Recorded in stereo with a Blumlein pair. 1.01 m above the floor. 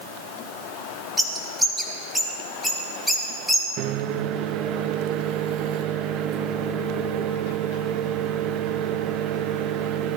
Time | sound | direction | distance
1.2 | a bird | straight ahead | 1.9 m
3.8 | a microwave | 35° right | 0.6 m